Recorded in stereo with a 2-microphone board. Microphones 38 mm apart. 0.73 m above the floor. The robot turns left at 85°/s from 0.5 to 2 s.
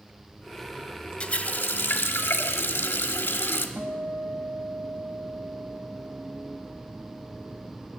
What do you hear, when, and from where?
1.2 s a running tap: 145° left, 1.0 m; by 3.7 s 80° left, 1.0 m
3.8 s a guitar: 65° right (ahead or behind), 1.0 m